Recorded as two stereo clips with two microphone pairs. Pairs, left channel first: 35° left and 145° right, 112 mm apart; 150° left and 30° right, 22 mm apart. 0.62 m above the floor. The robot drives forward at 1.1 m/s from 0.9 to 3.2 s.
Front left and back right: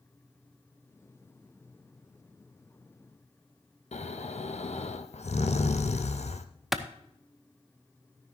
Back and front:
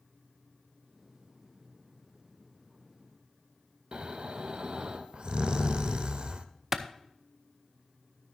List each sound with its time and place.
3.9 s snoring: 15° left, 0.7 m
6.7 s a clap: 65° right, 0.7 m